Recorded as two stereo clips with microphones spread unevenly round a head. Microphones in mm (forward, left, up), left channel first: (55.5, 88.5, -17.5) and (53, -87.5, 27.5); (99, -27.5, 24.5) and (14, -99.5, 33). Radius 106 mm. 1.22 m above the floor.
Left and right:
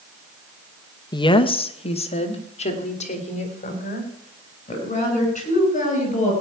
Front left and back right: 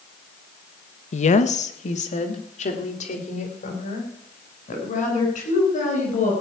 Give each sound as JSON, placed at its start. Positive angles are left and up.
{"t": 1.1, "sound": "a woman speaking", "azimuth_deg": 25, "distance_m": 0.9}